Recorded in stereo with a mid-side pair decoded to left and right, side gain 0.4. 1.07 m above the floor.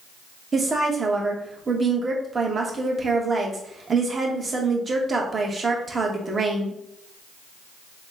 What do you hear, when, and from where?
0.5 s a woman speaking: 40° right, 1.1 m